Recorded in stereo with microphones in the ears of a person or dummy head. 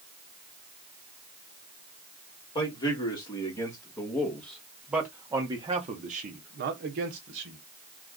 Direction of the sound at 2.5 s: 25° left (ahead or behind).